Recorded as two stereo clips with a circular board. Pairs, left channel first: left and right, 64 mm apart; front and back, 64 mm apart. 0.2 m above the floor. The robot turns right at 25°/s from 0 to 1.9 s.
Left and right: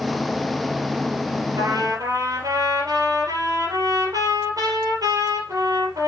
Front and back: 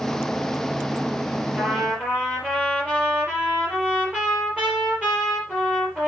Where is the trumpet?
115° right, 5 m; by 6.1 s 105° right, 5 m.